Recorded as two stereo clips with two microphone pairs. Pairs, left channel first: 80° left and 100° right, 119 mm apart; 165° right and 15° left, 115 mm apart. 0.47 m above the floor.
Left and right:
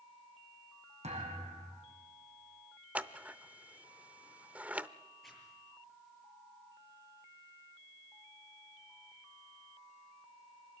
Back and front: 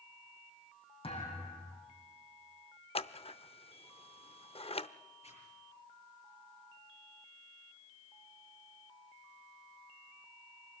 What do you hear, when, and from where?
1.0 s a thud: 125° right, 6 m
3.0 s scissors: 175° right, 0.5 m
5.2 s a zipper: 165° left, 7.5 m